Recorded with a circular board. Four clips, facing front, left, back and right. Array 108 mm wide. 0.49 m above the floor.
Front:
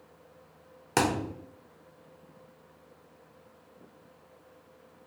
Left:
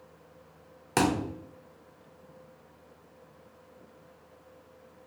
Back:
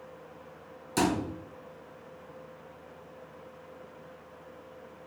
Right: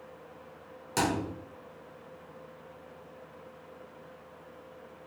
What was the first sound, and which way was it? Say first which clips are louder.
A thud: left 3 dB, even; 35° left.